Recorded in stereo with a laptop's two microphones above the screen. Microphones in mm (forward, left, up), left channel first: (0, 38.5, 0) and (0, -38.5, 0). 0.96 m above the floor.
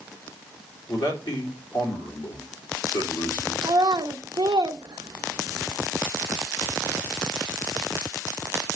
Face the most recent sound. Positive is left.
turn(degrees=-70)  # may be behind; listen again after turning